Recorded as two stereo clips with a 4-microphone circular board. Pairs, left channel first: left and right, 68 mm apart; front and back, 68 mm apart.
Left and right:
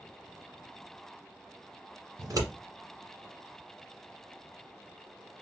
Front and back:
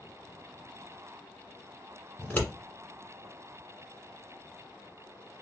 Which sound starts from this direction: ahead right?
Scissors, at 2.2 s.